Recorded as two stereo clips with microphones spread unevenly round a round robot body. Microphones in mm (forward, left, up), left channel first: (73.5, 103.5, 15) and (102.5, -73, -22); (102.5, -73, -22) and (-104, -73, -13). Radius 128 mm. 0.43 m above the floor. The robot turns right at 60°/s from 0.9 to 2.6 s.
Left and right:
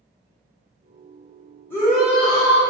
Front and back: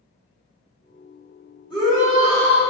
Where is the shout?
10° left, 1.5 m; by 2.6 s 65° left, 1.5 m.